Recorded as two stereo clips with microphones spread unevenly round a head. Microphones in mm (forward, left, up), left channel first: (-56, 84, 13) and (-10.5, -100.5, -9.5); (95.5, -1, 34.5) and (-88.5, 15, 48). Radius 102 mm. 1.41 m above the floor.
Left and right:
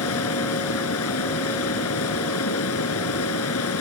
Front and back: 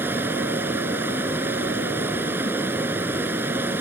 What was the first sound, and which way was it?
Running water, 95° left.